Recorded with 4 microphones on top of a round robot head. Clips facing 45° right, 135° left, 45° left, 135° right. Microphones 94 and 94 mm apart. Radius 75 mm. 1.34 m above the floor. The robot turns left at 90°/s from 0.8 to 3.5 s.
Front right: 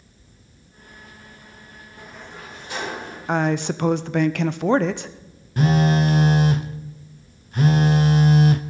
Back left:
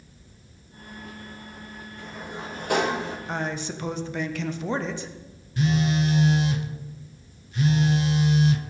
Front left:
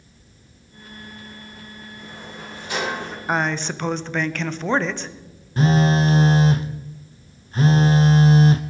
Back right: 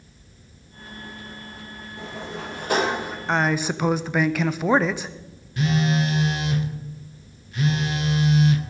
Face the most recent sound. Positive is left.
turn(degrees=-5)